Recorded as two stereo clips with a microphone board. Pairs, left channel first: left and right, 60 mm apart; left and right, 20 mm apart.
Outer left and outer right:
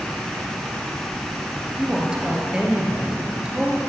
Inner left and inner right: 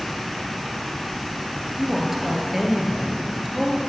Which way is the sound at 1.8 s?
15° right (ahead or behind).